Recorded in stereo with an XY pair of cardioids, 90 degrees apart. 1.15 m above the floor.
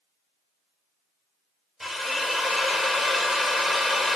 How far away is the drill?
About 1.8 m.